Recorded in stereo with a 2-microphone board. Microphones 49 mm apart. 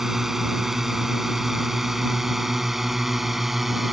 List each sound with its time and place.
0.0 s a drone: 5° right (ahead or behind)